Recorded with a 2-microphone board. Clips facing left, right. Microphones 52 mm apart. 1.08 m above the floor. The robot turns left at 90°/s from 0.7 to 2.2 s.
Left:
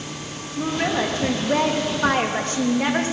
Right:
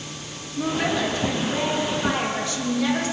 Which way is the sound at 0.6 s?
Straight behind.